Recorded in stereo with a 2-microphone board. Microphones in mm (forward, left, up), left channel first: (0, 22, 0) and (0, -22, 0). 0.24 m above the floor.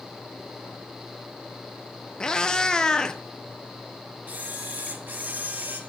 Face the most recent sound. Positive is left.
turn(degrees=-45)  # may be behind; listen again after turning